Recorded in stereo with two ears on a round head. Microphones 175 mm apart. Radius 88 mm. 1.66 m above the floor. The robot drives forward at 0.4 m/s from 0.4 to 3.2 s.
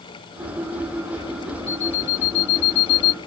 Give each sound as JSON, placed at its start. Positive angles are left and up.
{"t": 1.7, "sound": "an alarm clock", "side_deg": 55}